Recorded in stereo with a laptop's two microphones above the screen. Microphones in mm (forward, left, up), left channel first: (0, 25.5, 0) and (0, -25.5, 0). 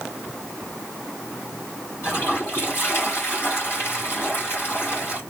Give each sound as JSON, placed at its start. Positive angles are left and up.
{"t": 2.0, "sound": "a toilet flushing", "side_deg": 50, "distance_m": 1.9}